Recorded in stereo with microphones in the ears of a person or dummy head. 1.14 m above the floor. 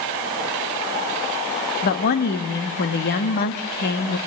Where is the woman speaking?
45° left (ahead or behind), 1.8 m.